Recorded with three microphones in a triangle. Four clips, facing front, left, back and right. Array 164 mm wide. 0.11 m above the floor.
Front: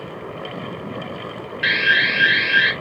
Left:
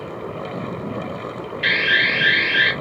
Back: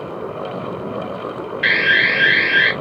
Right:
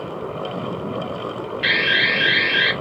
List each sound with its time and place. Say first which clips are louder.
1.6 s an alarm: left 1 dB, back 2 dB; straight behind, 1.6 m